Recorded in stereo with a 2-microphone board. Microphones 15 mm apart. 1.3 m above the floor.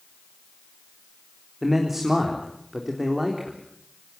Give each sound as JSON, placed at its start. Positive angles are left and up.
{"t": 1.6, "sound": "a man speaking", "side_deg": -15, "distance_m": 3.5}